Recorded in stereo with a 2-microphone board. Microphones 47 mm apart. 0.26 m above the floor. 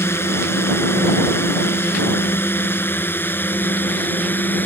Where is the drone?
65° left (ahead or behind); by 4.7 s 45° left (ahead or behind).